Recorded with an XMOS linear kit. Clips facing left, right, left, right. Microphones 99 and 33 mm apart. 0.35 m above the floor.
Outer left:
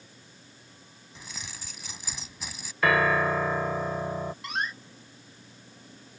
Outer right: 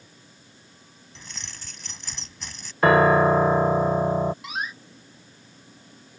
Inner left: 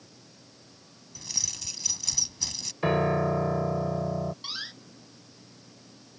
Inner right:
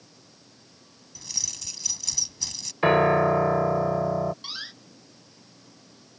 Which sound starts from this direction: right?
A piano, at 2.8 s.